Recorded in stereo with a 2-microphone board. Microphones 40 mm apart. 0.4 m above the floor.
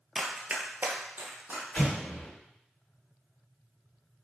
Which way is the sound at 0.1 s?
10° right (ahead or behind).